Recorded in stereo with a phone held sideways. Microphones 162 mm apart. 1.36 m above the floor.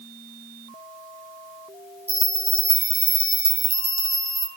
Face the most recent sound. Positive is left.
turn(degrees=-35)  # may be behind; listen again after turning